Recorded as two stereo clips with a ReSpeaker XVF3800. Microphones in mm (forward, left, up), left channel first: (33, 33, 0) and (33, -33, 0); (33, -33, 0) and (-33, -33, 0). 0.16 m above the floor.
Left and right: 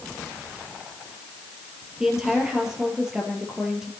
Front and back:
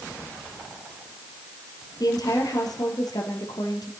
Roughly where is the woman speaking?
Ahead.